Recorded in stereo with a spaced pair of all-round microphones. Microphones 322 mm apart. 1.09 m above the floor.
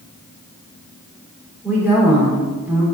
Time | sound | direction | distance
1.6 | a woman speaking | 5° right (ahead or behind) | 3 m